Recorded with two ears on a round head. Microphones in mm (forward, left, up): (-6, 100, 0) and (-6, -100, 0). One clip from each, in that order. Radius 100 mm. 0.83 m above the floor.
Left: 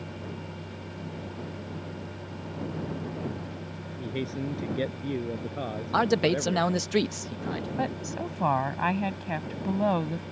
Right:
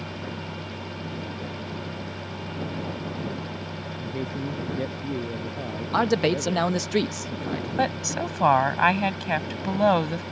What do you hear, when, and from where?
4.0 s a man speaking: 50° left (ahead or behind)
5.9 s a man speaking: centre (ahead or behind)
7.8 s a woman speaking: 50° right (ahead or behind)